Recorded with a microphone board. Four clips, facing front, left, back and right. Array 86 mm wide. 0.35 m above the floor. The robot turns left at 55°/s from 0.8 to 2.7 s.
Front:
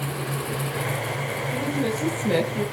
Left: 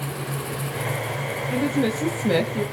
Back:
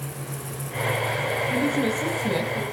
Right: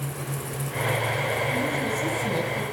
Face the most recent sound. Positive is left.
turn(degrees=55)